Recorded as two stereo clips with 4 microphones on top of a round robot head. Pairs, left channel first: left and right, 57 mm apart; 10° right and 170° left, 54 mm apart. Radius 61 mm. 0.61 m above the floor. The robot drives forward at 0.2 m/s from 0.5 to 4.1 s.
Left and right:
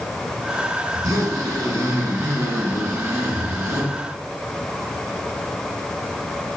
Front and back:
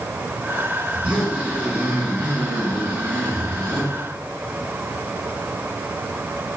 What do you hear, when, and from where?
0.9 s a zipper: 115° right, 1.1 m; by 3.9 s 135° right, 1.4 m